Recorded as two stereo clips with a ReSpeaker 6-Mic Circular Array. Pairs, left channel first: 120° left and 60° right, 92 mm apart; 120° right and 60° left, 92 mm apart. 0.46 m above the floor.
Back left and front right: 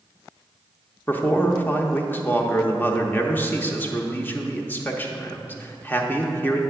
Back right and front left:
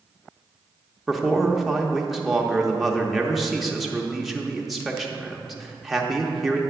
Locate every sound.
1.1 s a man speaking: 150° left, 0.7 m